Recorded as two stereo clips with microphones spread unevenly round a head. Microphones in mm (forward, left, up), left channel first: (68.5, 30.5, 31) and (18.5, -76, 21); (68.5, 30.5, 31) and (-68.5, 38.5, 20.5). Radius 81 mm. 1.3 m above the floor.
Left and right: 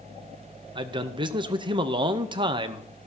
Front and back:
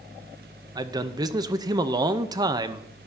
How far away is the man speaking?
About 0.6 m.